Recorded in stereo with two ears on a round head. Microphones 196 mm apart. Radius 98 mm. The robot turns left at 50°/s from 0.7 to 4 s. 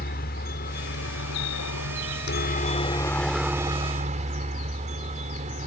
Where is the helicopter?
130° left; by 5.7 s 35° right.